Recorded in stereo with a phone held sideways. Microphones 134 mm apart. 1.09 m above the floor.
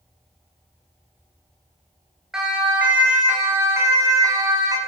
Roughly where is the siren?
Centre.